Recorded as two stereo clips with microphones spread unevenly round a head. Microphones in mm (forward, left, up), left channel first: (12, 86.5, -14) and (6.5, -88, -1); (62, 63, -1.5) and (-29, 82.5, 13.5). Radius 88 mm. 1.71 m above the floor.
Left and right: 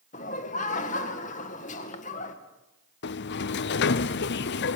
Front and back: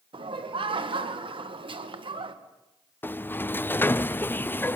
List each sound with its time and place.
0.1 s laughter: 140° left, 2 m
3.0 s a sliding door: 60° left, 0.6 m